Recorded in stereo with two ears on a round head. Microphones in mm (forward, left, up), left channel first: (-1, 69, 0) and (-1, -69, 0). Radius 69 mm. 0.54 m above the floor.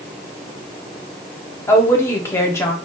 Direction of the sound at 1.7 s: 15° left (ahead or behind).